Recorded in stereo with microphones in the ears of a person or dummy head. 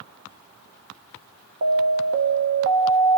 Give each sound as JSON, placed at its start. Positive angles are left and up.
{"t": 1.6, "sound": "an alarm", "side_deg": -60, "distance_m": 1.4}